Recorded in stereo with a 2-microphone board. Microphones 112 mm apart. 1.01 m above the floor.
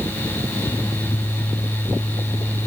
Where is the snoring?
No snoring in this recording.